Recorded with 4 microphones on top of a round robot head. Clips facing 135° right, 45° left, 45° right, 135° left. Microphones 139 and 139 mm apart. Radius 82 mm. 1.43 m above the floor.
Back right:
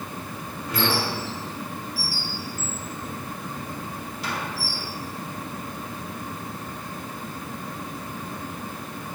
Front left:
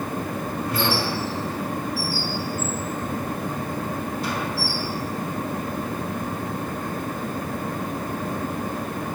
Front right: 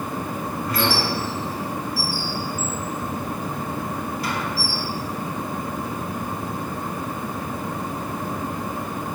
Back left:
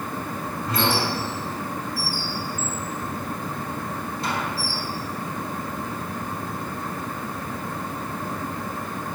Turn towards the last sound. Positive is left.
turn(degrees=-160)